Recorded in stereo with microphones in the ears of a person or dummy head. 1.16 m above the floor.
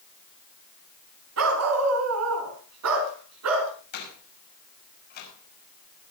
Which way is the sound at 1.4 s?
75° right (ahead or behind).